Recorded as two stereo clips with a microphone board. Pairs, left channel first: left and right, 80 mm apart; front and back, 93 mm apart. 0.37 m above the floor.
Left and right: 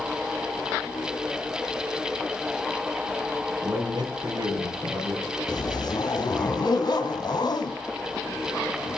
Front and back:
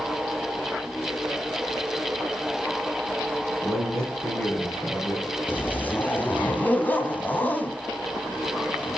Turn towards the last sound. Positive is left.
turn(degrees=70)